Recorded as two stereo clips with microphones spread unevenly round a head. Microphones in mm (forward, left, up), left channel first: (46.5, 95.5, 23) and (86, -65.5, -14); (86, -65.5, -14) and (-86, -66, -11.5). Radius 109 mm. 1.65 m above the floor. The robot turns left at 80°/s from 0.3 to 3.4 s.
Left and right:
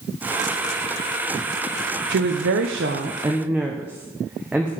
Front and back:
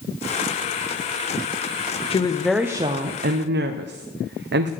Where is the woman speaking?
60° right, 1.0 m; by 4.7 s 165° right, 1.0 m.